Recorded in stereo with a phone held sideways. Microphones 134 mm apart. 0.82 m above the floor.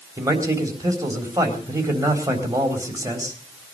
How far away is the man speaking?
About 3.5 m.